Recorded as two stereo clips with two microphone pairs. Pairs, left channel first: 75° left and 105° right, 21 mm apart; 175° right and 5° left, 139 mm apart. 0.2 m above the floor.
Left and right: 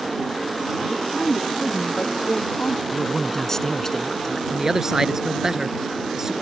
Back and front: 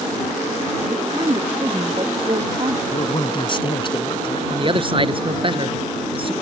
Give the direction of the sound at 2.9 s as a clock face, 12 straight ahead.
7 o'clock.